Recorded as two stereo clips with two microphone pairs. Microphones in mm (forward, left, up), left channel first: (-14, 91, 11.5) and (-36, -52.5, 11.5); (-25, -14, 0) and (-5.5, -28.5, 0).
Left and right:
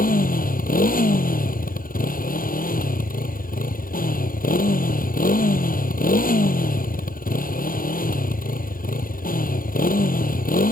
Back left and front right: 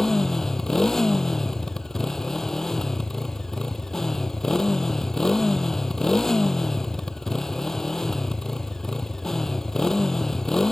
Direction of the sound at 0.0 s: 70° left.